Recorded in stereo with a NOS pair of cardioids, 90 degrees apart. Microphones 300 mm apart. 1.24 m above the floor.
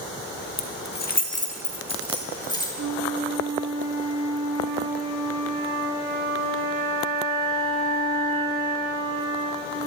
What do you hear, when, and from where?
0.6 s keys jangling: 45° left, 1.3 m; by 2.7 s 15° left, 3.5 m
2.8 s a flute: 50° right, 2 m